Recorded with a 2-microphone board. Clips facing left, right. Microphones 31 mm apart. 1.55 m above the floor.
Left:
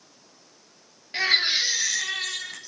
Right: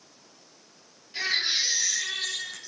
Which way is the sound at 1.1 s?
75° left (ahead or behind).